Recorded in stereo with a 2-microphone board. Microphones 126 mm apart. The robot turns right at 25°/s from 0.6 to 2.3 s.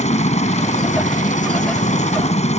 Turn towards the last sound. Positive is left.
turn(degrees=110)